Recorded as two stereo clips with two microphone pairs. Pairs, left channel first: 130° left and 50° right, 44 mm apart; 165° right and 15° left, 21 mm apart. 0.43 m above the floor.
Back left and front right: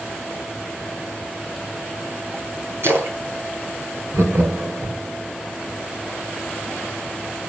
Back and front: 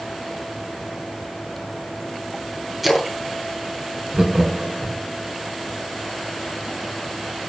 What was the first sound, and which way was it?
A splash, 75° right.